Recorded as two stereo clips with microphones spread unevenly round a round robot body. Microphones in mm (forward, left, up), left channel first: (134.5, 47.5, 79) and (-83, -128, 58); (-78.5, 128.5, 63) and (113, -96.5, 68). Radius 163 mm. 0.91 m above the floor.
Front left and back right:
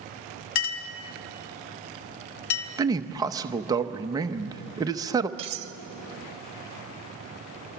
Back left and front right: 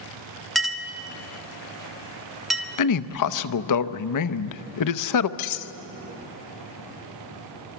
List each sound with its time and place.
0.6 s a clink: 40° left, 1.4 m
2.8 s a man speaking: 145° left, 0.8 m
5.4 s cutlery clinking: 150° left, 0.8 m